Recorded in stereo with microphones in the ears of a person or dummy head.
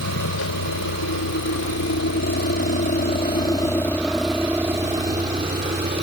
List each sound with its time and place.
0.0 s a vehicle: 80° left; by 6.0 s 40° right (ahead or behind)